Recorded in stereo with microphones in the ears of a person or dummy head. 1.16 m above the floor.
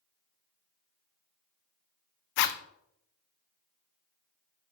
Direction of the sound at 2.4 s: 65° left (ahead or behind).